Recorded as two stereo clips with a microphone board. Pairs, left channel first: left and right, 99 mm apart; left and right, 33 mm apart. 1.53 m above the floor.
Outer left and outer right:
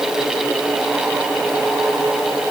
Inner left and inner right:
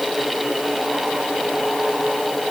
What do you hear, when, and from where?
Only background noise.